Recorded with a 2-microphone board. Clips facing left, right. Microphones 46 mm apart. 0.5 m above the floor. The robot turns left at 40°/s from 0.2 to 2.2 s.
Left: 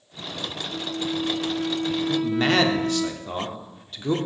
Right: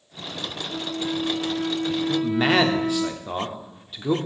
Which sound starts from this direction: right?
A flute, at 0.7 s.